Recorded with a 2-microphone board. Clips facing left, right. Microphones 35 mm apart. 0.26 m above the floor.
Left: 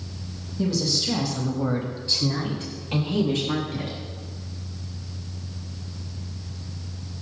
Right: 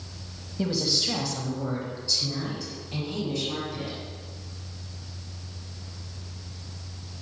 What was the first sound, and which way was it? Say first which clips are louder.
A woman speaking: left 2 dB; 35° right (ahead or behind).